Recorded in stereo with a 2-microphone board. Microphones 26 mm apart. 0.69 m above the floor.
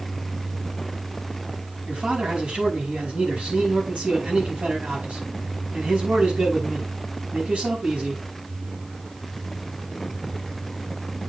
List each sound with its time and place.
1.9 s a man speaking: 80° right, 6 m